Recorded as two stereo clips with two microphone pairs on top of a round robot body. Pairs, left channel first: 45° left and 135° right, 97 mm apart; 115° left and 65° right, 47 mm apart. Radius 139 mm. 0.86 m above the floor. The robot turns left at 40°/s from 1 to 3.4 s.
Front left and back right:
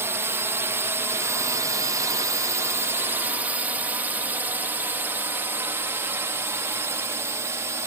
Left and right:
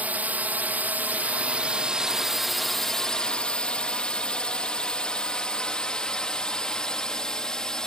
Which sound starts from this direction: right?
A drone, at 0.0 s.